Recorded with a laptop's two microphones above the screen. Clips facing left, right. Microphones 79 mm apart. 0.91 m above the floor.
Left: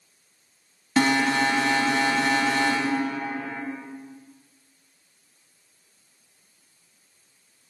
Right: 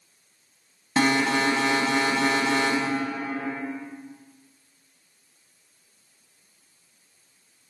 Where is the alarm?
25° right (ahead or behind), 1.5 m.